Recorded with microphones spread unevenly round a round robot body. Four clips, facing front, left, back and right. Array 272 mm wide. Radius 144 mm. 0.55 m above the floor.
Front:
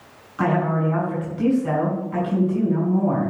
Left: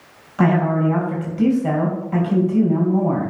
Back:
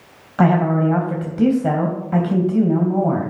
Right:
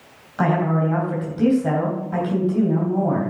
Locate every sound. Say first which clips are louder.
0.4 s a woman speaking: left 2 dB, back 5 dB; straight behind, 3 m